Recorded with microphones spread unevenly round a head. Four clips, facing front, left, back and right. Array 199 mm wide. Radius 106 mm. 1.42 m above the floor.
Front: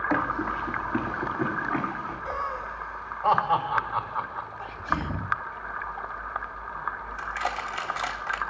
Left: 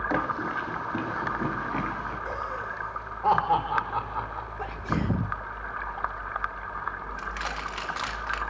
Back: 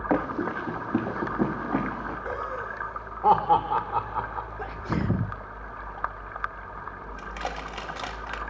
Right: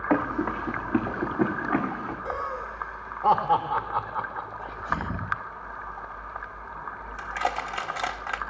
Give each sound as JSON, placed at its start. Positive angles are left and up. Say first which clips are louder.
{"t": 0.1, "sound": "running footsteps", "louder": "right 6 dB, back 3 dB", "azimuth_deg": -145, "distance_m": 8.0}
{"t": 2.2, "sound": "laughter", "louder": "right 1 dB, front 3 dB", "azimuth_deg": -165, "distance_m": 4.5}
{"t": 4.6, "sound": "a sneeze", "louder": "left 2 dB, front 1 dB", "azimuth_deg": 150, "distance_m": 1.2}
{"t": 7.2, "sound": "crushing", "louder": "right 8 dB, front 3 dB", "azimuth_deg": -120, "distance_m": 2.5}